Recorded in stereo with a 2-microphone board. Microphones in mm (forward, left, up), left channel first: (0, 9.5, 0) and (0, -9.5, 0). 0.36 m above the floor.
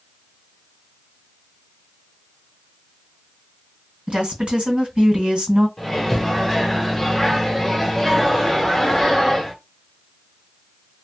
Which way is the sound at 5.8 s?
15° left (ahead or behind).